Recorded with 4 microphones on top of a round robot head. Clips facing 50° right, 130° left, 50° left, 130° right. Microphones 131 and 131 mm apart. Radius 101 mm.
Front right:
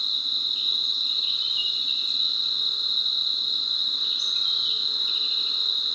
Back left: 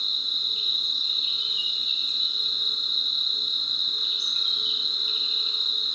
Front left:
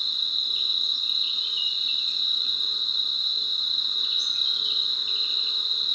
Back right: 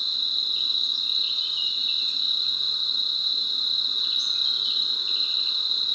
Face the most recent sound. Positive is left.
turn(degrees=-65)